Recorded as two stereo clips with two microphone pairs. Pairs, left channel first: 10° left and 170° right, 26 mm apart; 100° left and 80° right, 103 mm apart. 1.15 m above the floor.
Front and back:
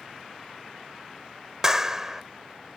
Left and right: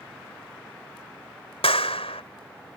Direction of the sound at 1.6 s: 120° left.